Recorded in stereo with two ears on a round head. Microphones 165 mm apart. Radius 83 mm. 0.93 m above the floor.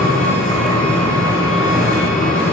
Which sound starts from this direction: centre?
An engine running, at 0.0 s.